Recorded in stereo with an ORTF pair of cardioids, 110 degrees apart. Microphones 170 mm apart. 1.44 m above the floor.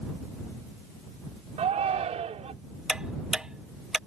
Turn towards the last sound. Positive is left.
turn(degrees=-5)